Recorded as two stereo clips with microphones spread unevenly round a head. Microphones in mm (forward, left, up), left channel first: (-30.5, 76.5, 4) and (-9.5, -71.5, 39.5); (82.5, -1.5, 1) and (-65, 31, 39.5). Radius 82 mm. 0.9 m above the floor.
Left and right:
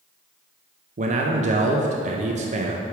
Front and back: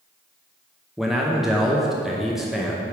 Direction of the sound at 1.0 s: 80° right.